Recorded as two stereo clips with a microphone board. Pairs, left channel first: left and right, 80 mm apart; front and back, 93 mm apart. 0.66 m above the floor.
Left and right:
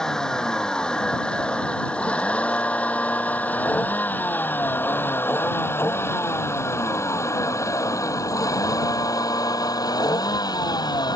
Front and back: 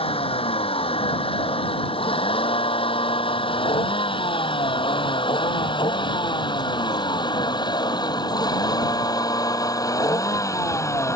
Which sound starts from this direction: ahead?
A vehicle, at 0.0 s.